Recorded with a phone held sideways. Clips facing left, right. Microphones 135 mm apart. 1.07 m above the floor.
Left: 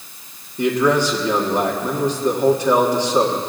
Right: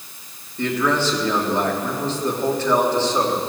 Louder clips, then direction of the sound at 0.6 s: Left 4 dB; 15° left (ahead or behind).